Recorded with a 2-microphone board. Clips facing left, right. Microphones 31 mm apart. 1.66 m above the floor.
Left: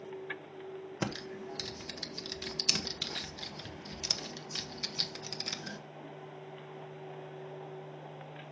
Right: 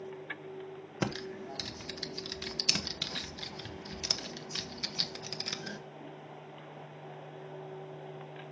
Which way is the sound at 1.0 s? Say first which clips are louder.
Right 3 dB; 10° right (ahead or behind).